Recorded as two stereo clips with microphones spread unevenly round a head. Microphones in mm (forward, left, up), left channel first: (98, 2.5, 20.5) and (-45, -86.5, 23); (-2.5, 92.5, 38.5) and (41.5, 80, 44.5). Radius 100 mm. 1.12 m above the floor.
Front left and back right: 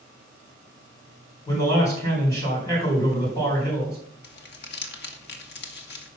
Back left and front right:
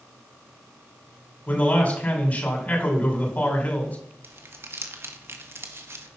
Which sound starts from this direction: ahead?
Crumpling, at 4.2 s.